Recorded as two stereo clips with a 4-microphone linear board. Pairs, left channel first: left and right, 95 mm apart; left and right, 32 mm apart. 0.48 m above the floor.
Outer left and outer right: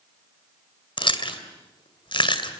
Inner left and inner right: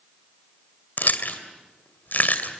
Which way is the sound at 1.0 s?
60° left (ahead or behind).